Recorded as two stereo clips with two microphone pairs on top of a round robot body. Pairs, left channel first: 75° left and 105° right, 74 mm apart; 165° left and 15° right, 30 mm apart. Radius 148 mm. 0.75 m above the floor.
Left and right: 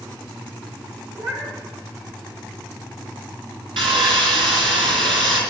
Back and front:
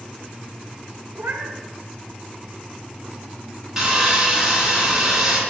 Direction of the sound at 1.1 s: 40° right.